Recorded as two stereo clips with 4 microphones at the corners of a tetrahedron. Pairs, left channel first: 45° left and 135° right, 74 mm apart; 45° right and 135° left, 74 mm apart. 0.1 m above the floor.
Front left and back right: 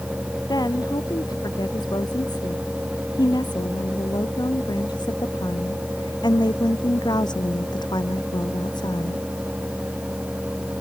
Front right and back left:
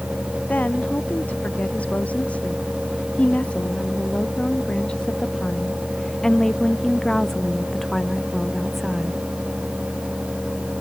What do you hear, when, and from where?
0.5 s a woman speaking: 25° left; by 9.2 s 50° left